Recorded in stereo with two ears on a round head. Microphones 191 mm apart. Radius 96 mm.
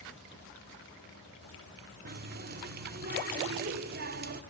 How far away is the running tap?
About 1.5 m.